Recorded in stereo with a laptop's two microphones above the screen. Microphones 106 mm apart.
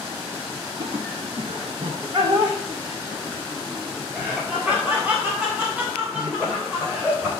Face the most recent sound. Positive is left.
turn(degrees=-15)  # may be behind; listen again after turning